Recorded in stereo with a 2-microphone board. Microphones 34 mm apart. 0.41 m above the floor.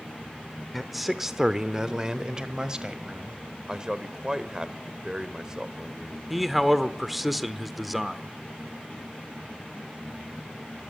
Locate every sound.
0.7 s a man speaking: centre (ahead or behind), 0.9 m; by 3.4 s 25° right (ahead or behind), 2 m
3.7 s a man speaking: 20° right (ahead or behind), 1.1 m
6.3 s a man speaking: 5° right (ahead or behind), 0.9 m